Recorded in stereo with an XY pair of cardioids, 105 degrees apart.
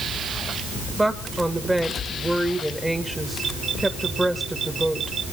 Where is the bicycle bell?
I don't hear a bicycle bell.